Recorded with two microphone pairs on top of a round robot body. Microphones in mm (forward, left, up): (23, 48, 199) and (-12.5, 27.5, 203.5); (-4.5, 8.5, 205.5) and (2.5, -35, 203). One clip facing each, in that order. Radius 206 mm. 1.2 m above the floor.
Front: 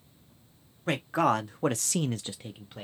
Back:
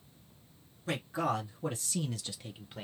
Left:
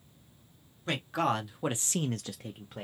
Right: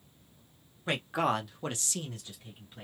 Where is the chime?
No chime in this recording.